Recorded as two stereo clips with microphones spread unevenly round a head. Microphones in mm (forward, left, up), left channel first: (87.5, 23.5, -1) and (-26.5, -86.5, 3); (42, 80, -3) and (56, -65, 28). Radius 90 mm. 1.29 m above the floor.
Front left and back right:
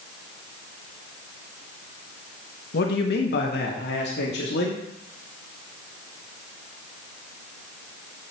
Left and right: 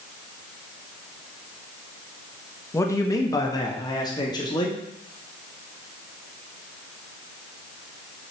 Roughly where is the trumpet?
No trumpet in this recording.